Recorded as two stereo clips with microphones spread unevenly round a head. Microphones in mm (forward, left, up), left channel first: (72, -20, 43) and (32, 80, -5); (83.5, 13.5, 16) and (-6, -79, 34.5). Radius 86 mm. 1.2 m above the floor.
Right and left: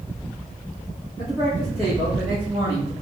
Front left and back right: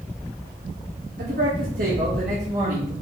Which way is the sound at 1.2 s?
135° right.